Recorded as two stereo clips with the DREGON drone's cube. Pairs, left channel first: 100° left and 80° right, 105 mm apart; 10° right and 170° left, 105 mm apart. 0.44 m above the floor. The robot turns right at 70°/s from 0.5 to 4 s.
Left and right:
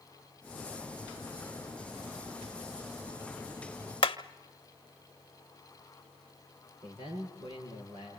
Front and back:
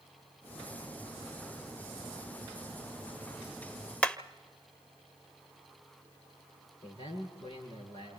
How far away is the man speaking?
About 8.5 m.